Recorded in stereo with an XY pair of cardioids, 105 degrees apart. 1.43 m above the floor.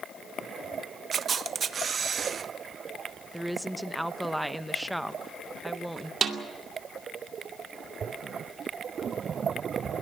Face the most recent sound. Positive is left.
turn(degrees=-55)